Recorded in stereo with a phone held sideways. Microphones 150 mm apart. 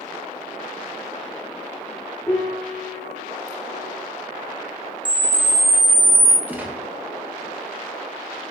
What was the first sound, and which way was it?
A piano, 20° left (ahead or behind).